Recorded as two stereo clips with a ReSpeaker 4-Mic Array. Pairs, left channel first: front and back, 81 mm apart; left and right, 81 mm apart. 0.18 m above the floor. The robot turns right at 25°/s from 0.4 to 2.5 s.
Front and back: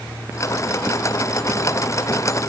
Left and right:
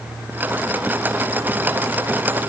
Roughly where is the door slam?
I don't hear a door slam.